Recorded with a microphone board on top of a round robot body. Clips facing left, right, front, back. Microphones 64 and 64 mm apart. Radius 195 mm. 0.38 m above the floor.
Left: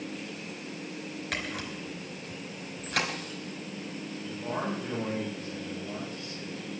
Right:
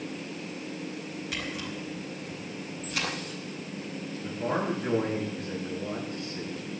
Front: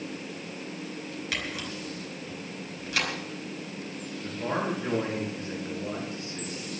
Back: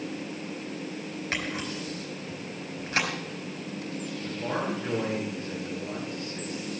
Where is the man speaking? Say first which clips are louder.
Right 4 dB, front 2 dB; 70° right, 9.5 m.